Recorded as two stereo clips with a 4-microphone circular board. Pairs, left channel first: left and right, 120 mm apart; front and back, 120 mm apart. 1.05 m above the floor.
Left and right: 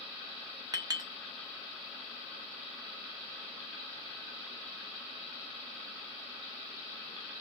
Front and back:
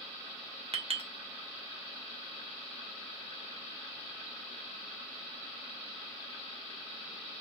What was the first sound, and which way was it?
A clink, 145° right.